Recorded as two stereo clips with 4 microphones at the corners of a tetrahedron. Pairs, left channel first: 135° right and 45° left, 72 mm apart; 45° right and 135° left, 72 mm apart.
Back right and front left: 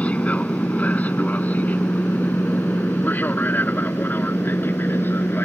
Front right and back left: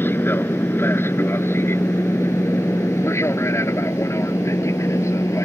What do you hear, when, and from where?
0.0 s an aircraft: 75° right; by 5.5 s 80° right